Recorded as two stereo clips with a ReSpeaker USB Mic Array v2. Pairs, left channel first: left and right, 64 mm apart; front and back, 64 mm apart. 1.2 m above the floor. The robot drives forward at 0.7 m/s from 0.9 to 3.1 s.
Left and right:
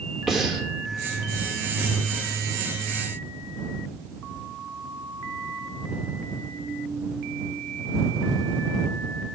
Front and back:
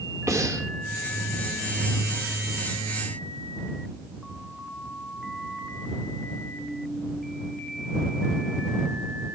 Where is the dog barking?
I don't hear a dog barking.